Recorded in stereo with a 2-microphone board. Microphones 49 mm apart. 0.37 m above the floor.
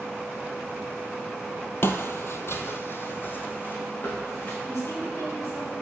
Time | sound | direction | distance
1.8 | footsteps | 50° left (ahead or behind) | 0.6 m
4.7 | a woman speaking | 70° left (ahead or behind) | 3 m